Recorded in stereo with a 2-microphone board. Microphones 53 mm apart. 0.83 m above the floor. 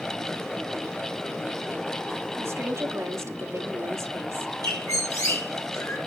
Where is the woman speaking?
65° right (ahead or behind), 1.9 m.